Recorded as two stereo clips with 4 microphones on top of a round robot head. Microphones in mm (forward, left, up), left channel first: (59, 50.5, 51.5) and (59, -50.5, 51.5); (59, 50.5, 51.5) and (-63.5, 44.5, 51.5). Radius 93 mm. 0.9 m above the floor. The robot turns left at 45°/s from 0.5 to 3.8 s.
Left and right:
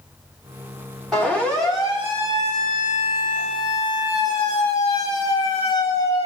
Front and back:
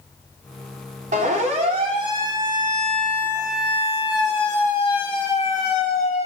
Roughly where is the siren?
Behind.